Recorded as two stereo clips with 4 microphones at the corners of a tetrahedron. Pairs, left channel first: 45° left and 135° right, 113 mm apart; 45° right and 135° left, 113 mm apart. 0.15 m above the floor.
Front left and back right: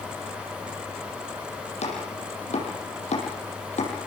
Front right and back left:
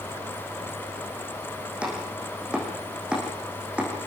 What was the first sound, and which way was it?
Chopping, 55° left.